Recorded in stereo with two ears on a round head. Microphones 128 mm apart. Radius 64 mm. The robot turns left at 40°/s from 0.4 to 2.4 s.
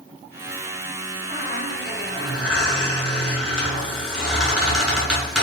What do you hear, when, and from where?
1.3 s a squeak: 140° right, 2.0 m; by 5.4 s 175° left, 2.0 m